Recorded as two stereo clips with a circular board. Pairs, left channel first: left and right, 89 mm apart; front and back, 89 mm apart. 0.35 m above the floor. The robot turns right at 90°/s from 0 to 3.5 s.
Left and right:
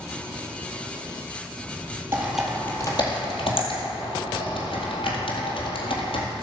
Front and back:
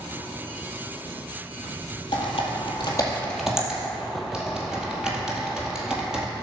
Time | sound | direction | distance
2.1 | typing on a keyboard | 30° right | 2 m